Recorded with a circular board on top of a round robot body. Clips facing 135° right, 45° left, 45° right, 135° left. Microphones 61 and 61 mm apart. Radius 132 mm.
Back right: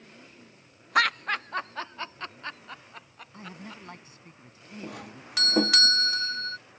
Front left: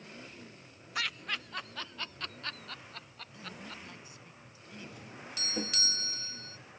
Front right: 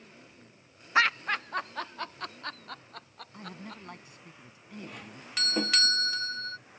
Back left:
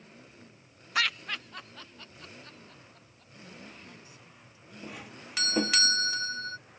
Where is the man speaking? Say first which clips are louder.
Back right 3 dB, front right 4 dB; 85° right.